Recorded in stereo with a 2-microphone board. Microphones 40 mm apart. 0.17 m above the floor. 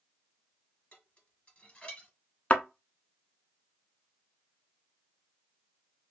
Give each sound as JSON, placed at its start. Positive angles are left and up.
{"t": 0.9, "sound": "dishes clattering", "side_deg": 25, "distance_m": 1.6}
{"t": 2.5, "sound": "a thud", "side_deg": 30, "distance_m": 0.7}